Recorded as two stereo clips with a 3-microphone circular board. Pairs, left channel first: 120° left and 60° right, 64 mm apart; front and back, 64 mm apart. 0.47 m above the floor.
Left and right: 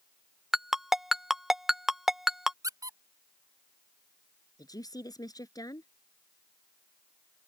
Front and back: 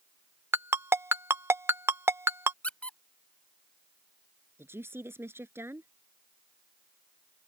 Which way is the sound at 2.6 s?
70° right.